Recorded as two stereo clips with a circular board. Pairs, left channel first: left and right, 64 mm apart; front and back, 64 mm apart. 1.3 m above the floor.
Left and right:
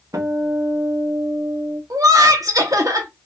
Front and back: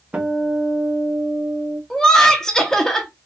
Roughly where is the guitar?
Right.